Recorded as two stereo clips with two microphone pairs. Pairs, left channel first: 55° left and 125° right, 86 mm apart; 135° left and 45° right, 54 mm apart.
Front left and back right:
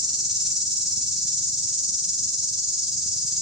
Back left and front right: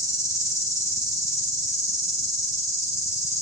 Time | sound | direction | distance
0.0 | an insect | 150° left | 3.5 m